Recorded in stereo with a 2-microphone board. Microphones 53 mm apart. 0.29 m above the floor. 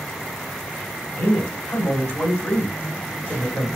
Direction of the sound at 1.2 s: 30° left (ahead or behind).